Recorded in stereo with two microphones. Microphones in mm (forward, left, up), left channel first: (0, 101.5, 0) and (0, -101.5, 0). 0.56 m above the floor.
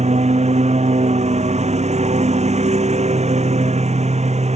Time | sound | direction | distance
0.0 | a lawn mower | 35° right (ahead or behind) | ?